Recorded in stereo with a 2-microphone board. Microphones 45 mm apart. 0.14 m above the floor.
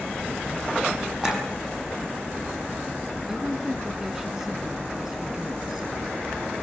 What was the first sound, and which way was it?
A clink, 15° right (ahead or behind).